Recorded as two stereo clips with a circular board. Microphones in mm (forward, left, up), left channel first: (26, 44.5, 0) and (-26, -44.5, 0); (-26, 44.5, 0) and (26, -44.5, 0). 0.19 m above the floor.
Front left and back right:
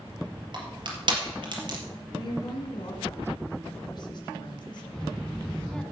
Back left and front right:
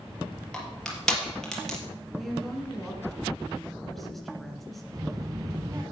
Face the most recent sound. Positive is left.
turn(degrees=-20)